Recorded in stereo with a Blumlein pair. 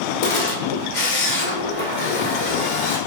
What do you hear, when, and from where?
0.2 s a camera shutter: 55° left, 0.9 m